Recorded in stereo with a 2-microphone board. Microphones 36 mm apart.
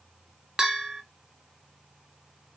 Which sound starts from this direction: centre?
A bell, at 0.6 s.